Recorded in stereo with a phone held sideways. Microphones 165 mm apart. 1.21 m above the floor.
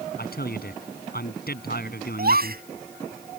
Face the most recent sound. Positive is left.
turn(degrees=-70)  # may be behind; listen again after turning